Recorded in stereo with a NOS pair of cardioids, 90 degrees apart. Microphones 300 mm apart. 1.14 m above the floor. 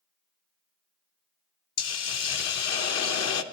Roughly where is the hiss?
Ahead left.